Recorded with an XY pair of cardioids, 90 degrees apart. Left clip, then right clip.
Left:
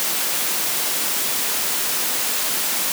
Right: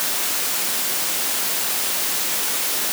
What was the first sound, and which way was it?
Only background noise.